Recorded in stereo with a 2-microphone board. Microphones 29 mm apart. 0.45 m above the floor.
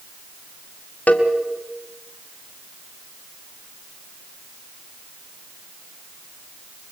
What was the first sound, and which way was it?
A cowbell, 60° left (ahead or behind).